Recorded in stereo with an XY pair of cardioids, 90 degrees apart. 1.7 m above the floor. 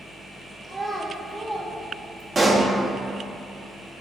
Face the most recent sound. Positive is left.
turn(degrees=-30)